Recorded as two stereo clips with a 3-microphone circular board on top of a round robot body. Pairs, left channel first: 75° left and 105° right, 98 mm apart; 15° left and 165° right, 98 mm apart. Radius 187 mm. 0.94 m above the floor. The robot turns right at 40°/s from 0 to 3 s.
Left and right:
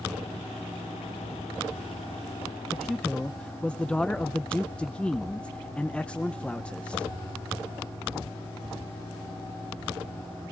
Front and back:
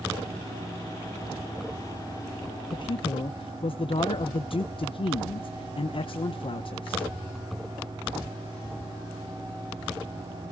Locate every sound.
2.7 s a man speaking: 15° right, 0.7 m; by 7.1 s 5° right, 0.7 m